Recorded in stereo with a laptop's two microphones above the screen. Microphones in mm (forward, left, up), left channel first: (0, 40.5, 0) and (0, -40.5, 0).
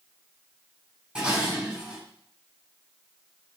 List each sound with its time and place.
1.1 s dishes clattering: 10° right (ahead or behind), 7.5 m